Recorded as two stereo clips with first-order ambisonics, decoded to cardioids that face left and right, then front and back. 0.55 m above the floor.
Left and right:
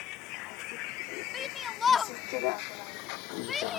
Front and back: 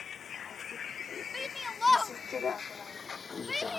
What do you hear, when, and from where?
0.0 s a vehicle: 65° left; by 3.8 s 75° left
1.3 s a shout: 65° left